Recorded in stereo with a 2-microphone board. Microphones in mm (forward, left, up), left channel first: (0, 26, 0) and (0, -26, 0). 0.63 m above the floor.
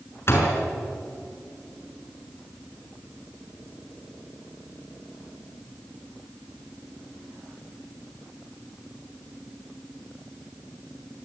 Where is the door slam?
50° left (ahead or behind), 5.5 m.